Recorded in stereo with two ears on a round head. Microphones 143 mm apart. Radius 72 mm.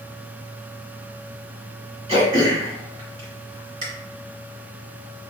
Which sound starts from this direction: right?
Throat clearing, at 2.1 s.